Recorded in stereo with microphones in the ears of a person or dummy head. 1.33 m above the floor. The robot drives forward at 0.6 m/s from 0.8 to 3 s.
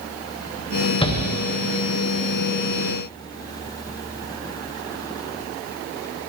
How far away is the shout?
About 0.9 m.